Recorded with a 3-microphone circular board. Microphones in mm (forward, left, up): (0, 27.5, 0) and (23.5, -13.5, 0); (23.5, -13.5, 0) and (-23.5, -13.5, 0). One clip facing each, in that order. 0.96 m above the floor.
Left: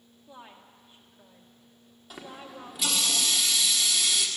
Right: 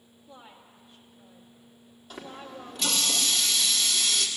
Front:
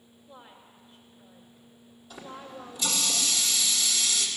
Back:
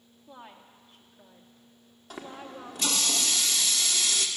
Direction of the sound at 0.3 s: 175° right.